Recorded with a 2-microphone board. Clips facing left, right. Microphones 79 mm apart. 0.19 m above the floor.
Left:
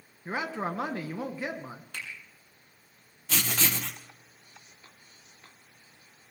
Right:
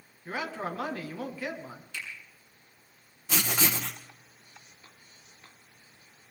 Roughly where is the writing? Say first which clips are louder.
Right 1 dB; centre.